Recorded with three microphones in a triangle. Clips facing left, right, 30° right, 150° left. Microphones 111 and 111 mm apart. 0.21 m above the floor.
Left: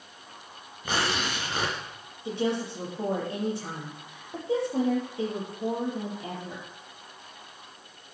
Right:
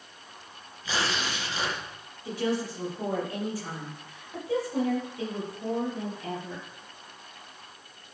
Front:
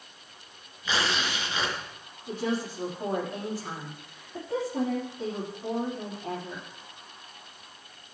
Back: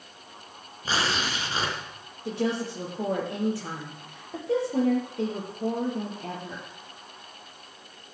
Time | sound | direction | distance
0.8 | tearing paper | 105° left | 3.5 m
2.2 | a woman speaking | 155° left | 6 m